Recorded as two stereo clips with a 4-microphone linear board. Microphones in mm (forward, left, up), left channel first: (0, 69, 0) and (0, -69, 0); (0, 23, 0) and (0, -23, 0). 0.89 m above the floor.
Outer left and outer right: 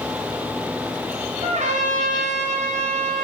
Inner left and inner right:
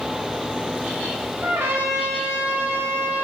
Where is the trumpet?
60° right (ahead or behind), 0.6 m.